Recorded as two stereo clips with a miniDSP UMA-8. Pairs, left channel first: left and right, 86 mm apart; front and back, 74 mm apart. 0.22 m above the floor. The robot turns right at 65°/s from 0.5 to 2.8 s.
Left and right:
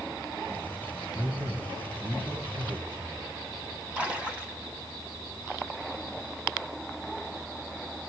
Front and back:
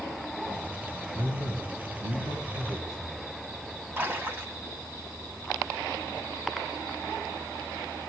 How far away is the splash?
About 1.5 m.